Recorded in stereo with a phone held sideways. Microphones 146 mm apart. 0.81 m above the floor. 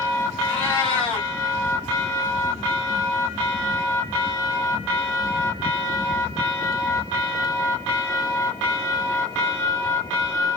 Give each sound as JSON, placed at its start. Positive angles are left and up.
{"t": 0.5, "sound": "a cat meowing", "side_deg": 35, "distance_m": 2.0}